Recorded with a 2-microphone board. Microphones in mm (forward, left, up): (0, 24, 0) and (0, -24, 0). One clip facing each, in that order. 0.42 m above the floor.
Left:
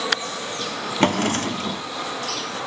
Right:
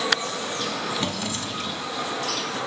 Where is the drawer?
55° left (ahead or behind), 0.7 m.